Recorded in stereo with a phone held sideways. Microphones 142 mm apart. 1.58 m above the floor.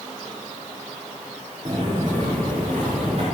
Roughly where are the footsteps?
Right.